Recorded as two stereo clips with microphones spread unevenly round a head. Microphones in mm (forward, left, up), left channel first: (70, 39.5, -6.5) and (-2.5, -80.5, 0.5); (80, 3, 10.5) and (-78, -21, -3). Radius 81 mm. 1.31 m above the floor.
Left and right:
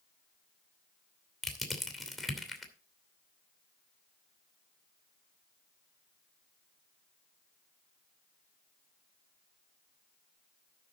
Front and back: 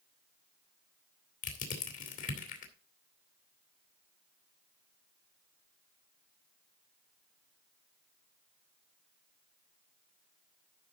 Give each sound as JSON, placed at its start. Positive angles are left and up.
{"t": 1.4, "sound": "crushing", "azimuth_deg": -30, "distance_m": 2.5}